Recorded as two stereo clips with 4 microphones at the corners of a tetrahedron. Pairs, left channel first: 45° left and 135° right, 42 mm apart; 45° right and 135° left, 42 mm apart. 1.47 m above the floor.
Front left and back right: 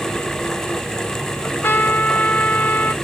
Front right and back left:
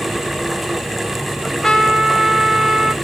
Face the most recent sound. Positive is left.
turn(degrees=30)